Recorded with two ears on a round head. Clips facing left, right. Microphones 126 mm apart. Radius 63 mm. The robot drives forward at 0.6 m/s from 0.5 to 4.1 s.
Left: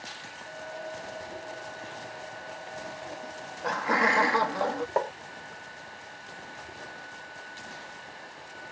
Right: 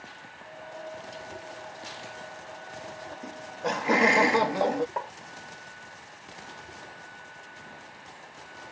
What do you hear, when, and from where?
3.2 s laughter: 25° right (ahead or behind)
5.0 s tapping: 55° left (ahead or behind)